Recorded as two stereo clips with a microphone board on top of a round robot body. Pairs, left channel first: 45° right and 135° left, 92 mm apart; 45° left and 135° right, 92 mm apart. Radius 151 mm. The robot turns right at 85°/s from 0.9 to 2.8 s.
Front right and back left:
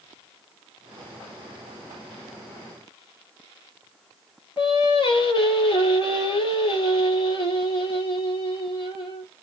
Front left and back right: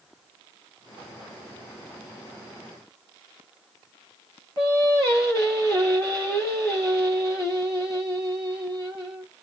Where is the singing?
10° right, 4 m.